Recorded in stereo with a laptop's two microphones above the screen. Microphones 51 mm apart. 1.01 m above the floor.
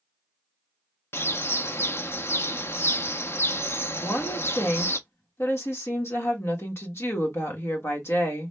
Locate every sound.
1.1 s a bird: 55° left (ahead or behind), 0.6 m
4.0 s a woman speaking: 60° left (ahead or behind), 1.3 m